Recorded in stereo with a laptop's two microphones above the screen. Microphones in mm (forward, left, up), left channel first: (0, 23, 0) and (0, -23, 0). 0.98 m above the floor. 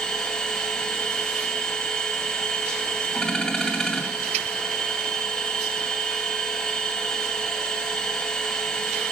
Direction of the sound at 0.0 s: 15° left (ahead or behind).